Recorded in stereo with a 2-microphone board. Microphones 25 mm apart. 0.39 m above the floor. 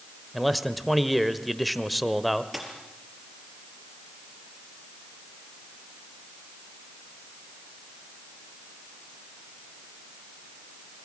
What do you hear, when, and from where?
0.3 s a man speaking: 5° right (ahead or behind), 1.2 m
2.5 s a dropped coin: 5° right (ahead or behind), 4.5 m